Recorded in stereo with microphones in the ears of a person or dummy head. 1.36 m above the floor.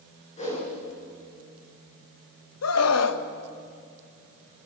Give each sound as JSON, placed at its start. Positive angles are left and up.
{"t": 0.4, "sound": "a whoosh", "side_deg": 30, "distance_m": 8.0}
{"t": 2.6, "sound": "a scream", "side_deg": 85, "distance_m": 1.6}